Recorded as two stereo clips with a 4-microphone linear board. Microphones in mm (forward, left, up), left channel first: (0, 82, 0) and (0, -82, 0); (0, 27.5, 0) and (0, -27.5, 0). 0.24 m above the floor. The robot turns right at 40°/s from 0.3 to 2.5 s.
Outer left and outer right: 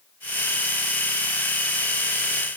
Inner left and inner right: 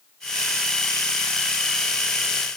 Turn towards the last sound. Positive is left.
No sound to turn to.